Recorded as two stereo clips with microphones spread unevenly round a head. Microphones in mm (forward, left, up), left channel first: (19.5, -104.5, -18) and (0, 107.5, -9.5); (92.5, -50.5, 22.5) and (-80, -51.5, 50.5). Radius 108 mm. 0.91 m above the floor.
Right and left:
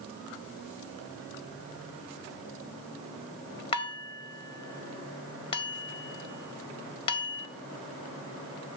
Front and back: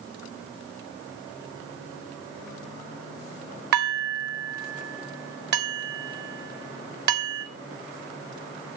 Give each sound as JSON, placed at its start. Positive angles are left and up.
{"t": 3.7, "sound": "dishes clattering", "azimuth_deg": -150, "distance_m": 1.8}